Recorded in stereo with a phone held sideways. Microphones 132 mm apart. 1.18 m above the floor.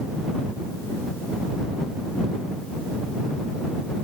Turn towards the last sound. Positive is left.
No sound to turn to.